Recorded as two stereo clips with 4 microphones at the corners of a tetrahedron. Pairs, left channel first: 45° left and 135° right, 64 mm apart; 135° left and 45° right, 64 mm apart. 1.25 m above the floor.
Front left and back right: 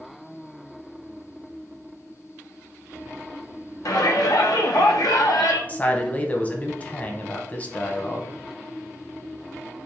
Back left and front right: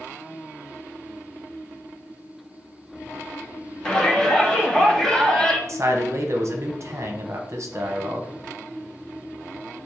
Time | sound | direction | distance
3.9 | a shout | 55° left | 1.0 m
5.7 | a man speaking | 20° right | 0.8 m